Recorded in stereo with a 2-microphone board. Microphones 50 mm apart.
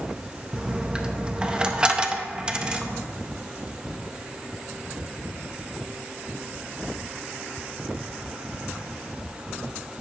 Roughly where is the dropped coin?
Centre.